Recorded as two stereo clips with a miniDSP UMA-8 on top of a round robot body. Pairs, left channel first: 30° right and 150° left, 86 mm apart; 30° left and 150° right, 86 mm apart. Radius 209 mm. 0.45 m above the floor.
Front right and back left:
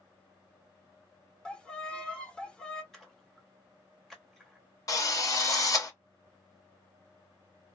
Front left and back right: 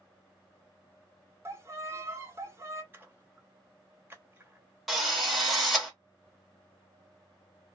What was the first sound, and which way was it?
A violin, 105° right.